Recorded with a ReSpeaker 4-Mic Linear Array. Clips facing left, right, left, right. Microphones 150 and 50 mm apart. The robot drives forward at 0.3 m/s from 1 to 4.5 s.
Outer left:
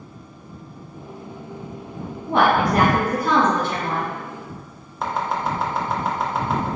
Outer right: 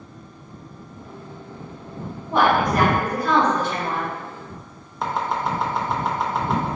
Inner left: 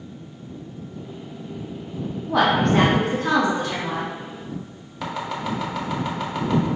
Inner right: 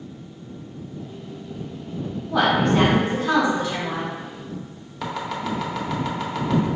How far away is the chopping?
About 0.7 m.